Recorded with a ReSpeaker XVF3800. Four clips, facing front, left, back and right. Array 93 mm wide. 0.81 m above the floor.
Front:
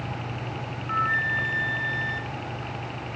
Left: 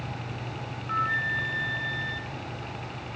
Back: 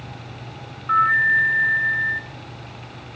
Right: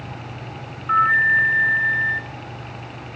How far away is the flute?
About 0.8 m.